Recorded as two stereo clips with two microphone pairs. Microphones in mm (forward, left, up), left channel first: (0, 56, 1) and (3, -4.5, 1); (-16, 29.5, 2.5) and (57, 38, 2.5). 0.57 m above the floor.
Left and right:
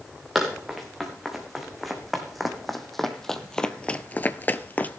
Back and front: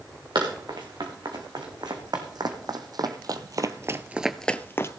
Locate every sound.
0.3 s running footsteps: straight ahead, 4 m; by 5.0 s 150° left, 0.9 m